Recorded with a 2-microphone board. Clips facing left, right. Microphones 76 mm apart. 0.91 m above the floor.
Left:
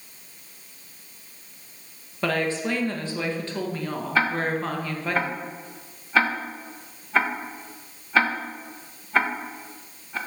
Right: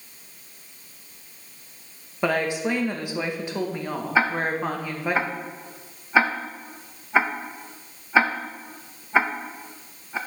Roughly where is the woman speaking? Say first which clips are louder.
Right 1 dB; centre.